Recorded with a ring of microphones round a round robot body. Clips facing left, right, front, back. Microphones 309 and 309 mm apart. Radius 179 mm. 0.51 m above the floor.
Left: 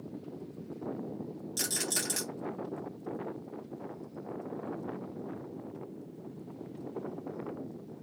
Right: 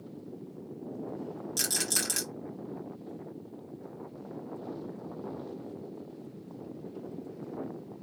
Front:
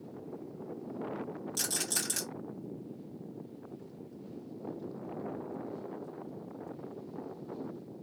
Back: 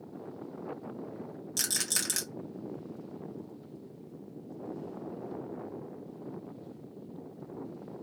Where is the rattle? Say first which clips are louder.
Right 1 dB, front 2 dB; 155° right, 1.4 m.